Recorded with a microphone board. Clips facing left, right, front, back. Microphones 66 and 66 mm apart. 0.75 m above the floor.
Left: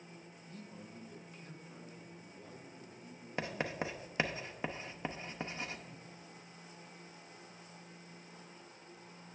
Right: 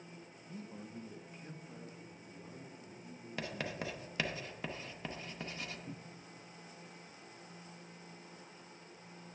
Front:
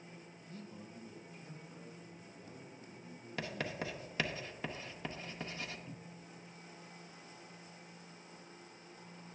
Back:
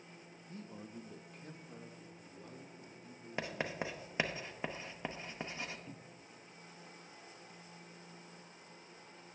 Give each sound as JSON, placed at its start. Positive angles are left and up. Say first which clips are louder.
{"t": 0.5, "sound": "a man speaking", "louder": "right 4 dB, back 2 dB", "azimuth_deg": -145, "distance_m": 0.6}
{"t": 3.4, "sound": "writing", "louder": "left 3 dB, back 1 dB", "azimuth_deg": 130, "distance_m": 0.7}
{"t": 5.9, "sound": "a cupboard door", "louder": "right 3 dB, front 1 dB", "azimuth_deg": -105, "distance_m": 0.5}